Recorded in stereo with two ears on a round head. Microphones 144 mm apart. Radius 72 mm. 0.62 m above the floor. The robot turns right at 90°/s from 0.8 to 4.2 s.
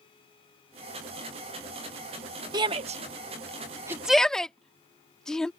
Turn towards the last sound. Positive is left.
turn(degrees=5)  # may be behind; listen again after turning